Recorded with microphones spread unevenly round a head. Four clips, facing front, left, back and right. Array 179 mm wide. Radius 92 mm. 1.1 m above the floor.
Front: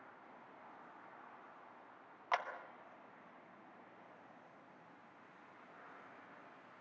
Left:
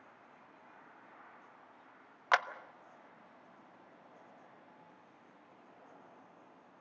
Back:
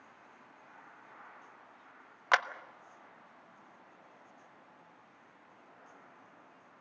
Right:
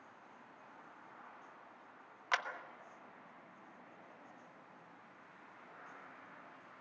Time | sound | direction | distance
2.3 | a clap | 155° left | 1.2 m